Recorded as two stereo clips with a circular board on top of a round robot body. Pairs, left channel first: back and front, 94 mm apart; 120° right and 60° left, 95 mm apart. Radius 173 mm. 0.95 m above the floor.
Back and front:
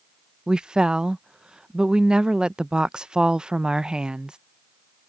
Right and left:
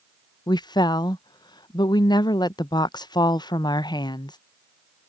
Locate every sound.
0.5 s a woman speaking: 80° right